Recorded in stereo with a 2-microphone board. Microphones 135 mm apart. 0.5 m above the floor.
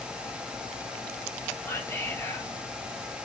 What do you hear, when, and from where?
1.6 s whispering: 20° left (ahead or behind), 0.9 m